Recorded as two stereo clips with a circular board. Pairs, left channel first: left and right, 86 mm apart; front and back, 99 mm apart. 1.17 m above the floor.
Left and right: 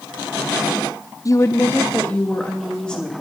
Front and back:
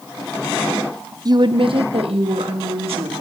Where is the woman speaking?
135° left, 0.5 m; by 3.2 s 170° left, 2.5 m.